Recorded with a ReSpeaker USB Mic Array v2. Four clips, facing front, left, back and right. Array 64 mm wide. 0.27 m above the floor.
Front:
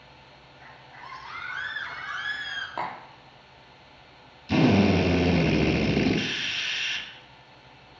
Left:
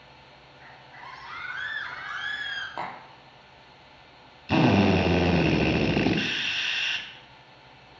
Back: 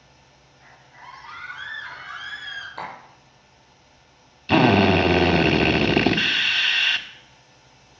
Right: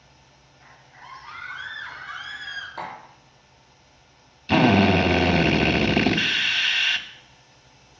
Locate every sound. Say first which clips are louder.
0.6 s a scream: left 2 dB, even; 70° left, 6 m; by 2.7 s 60° left, 5 m
2.8 s tapping: even, front 4 dB; 40° left, 3.5 m
4.5 s a drill: right 3 dB, back 4 dB; 160° right, 0.8 m